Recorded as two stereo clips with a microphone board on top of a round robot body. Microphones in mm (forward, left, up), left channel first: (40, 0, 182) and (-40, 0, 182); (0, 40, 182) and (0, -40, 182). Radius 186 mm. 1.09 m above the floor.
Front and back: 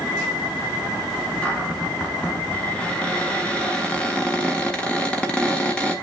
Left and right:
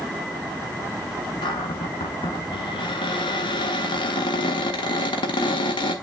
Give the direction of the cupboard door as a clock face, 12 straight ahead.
9 o'clock.